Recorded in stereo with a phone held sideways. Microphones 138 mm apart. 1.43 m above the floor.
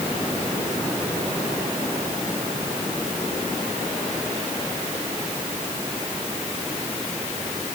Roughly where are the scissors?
I don't hear scissors.